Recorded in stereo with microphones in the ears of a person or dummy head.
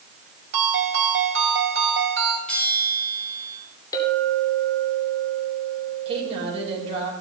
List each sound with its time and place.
0.5 s a ringtone: 55° right (ahead or behind), 4 m
2.5 s a bell: 10° left (ahead or behind), 9 m
3.9 s a clink: 25° left (ahead or behind), 3 m
6.0 s a woman speaking: 25° right (ahead or behind), 5.5 m